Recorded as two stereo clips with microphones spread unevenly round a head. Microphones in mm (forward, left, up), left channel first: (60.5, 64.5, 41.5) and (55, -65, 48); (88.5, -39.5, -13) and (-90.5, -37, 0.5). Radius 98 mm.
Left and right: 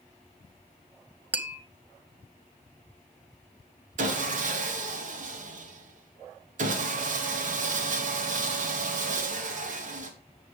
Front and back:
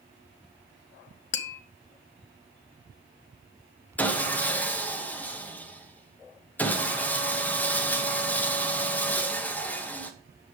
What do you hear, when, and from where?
1.3 s tapping: 20° right, 0.8 m
4.0 s sawing: 80° right, 1.3 m